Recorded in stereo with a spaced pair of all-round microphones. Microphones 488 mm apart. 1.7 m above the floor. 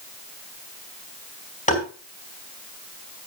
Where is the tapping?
15° left (ahead or behind), 3.5 m.